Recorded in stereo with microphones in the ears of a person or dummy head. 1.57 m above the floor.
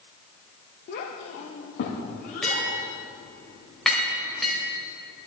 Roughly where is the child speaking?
Left.